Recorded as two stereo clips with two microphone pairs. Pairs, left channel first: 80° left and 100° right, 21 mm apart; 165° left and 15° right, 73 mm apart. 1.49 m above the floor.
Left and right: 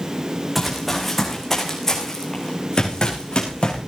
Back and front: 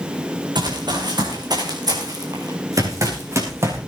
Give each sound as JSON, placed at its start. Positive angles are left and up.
{"t": 0.6, "sound": "running footsteps", "azimuth_deg": -10, "distance_m": 5.5}